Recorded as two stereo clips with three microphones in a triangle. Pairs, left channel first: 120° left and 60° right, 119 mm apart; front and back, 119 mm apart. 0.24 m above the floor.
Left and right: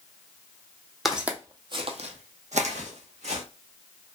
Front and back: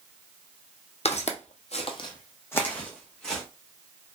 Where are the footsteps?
30° left, 0.7 m; by 3.4 s 85° right, 1.3 m.